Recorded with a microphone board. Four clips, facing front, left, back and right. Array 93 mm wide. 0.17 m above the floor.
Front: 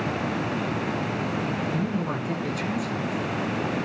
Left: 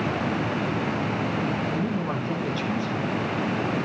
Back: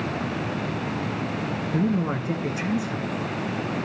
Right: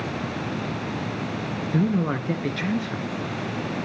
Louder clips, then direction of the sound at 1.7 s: Right 3 dB, back 3 dB; 115° right.